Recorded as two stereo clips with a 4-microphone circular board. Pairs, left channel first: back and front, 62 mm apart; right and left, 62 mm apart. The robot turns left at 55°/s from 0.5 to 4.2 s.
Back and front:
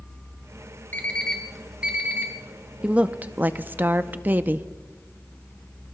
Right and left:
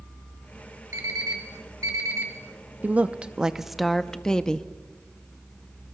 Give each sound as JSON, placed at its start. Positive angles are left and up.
{"t": 0.9, "sound": "an alarm clock", "azimuth_deg": 120, "distance_m": 2.0}
{"t": 2.8, "sound": "a woman speaking", "azimuth_deg": 55, "distance_m": 0.5}